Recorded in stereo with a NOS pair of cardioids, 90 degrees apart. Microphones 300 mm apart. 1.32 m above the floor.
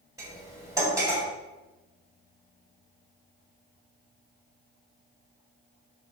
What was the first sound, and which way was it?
Cutlery clinking, 10° right.